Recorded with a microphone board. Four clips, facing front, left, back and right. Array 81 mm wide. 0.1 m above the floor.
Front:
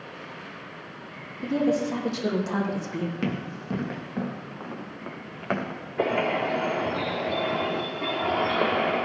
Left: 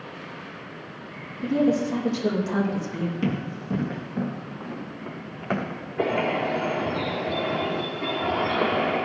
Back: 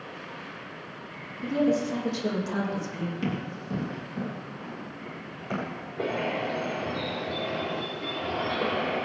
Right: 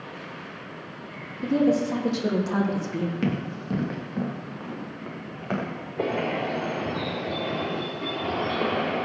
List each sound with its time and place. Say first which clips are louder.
1.4 s a woman speaking: even, front 1 dB; 40° right, 4 m
3.2 s running footsteps: even, front 2 dB; 40° right, 4 m; by 5.8 s 10° left, 4.5 m
6.0 s a bird: left 3 dB, front 5 dB; 5° left, 3 m